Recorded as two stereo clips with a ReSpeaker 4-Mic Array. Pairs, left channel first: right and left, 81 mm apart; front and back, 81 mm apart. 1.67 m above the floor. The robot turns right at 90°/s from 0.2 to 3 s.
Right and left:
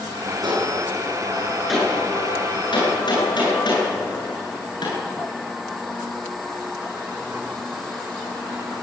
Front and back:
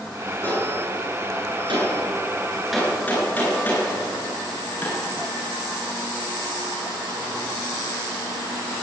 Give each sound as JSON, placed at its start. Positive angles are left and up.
{"t": 0.4, "sound": "a gunshot", "azimuth_deg": 60, "distance_m": 10.0}